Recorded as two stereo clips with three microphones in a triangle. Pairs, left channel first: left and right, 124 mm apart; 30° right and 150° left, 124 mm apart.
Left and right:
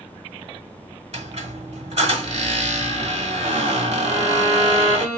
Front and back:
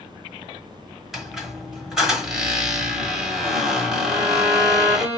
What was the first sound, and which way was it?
A squeak, 120° right.